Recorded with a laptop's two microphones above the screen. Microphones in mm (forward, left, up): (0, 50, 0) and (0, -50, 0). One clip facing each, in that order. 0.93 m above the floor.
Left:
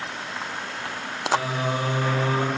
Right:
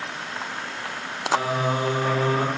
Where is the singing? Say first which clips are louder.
Right 2 dB; 35° right (ahead or behind), 0.8 m.